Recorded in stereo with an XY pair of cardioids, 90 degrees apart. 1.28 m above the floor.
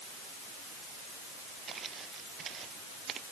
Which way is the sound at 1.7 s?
55° right.